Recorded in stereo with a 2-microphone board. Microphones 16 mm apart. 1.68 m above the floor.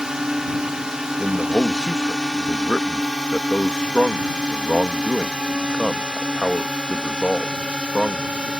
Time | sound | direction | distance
0.0 | a drone | 40° right (ahead or behind) | ?
1.2 | a man speaking | 65° left (ahead or behind) | ?